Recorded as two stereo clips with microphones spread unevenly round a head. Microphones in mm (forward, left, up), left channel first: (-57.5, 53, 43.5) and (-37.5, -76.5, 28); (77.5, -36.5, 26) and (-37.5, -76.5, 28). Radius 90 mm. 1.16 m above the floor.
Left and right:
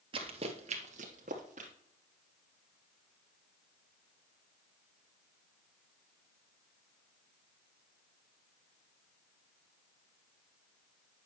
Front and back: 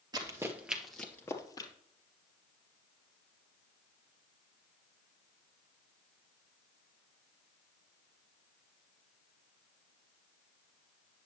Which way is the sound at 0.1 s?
120° right.